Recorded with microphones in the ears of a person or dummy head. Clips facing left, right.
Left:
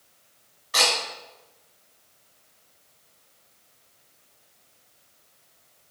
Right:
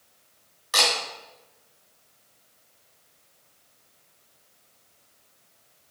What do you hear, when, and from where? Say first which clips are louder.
0.7 s a camera shutter: left 1 dB; 50° right (ahead or behind), 1.3 m